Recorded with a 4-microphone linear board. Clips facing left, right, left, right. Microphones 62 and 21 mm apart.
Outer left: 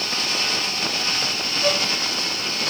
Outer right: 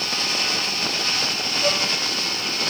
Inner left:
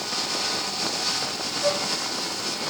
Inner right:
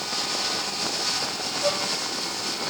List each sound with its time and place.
1.6 s a violin: 10° right (ahead or behind), 1.4 m